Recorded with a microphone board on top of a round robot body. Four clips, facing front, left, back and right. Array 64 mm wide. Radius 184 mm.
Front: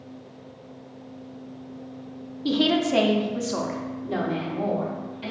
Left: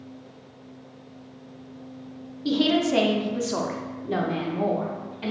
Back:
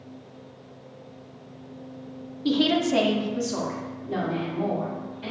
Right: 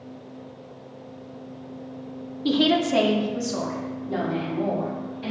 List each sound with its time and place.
2.5 s a woman speaking: 85° right, 0.7 m; by 5.3 s 65° left, 1.4 m